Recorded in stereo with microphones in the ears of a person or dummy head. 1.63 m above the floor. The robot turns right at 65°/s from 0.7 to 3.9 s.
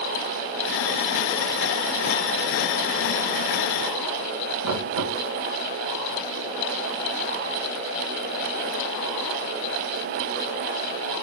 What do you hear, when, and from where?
4.6 s knocking: 55° right (ahead or behind), 1.4 m